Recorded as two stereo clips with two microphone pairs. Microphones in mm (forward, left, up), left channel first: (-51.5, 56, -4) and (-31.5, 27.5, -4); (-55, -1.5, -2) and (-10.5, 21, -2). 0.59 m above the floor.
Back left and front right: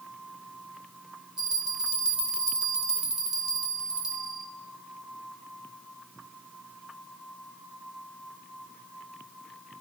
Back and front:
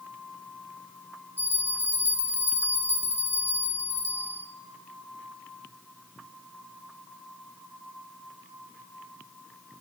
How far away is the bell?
About 0.8 m.